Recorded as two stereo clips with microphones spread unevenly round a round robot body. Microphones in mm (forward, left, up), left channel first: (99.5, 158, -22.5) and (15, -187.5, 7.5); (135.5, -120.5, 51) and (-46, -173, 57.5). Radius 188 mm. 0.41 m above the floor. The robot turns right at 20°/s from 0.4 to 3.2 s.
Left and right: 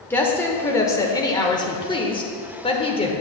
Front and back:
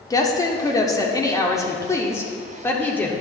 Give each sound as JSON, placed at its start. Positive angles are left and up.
{"t": 0.1, "sound": "a woman speaking", "azimuth_deg": 20, "distance_m": 0.9}